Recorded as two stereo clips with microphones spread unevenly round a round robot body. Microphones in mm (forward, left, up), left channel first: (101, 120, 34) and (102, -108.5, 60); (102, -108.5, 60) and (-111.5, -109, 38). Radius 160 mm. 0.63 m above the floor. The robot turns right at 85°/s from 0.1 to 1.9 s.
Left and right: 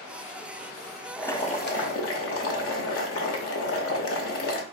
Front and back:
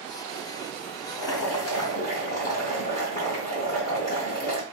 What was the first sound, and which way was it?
Boiling, straight ahead.